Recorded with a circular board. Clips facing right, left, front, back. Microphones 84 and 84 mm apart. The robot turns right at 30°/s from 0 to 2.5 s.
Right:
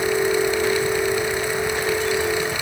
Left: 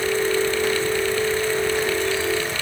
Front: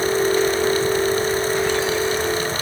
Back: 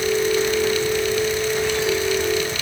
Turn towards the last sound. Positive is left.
No sound to turn to.